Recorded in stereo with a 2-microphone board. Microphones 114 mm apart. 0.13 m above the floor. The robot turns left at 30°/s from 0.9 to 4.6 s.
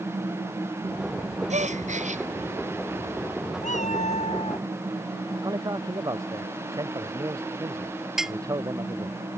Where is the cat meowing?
90° left; by 4.7 s 60° left (ahead or behind).